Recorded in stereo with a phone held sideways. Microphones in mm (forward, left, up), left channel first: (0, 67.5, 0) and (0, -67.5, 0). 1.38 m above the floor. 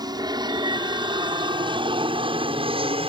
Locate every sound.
0.0 s an aircraft: 30° right (ahead or behind); by 3.1 s 40° right (ahead or behind)